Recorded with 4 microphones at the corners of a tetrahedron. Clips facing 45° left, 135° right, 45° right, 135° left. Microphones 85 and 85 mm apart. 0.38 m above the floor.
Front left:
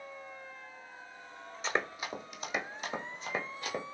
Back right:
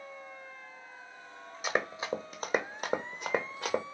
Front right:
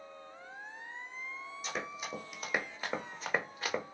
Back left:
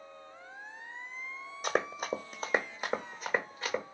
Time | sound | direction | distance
1.6 | running footsteps | 150° left | 0.8 m